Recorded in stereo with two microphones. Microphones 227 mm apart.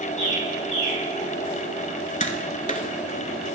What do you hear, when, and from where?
0.2 s a bird: 35° right (ahead or behind), 5 m
2.2 s tapping: 30° left (ahead or behind), 0.7 m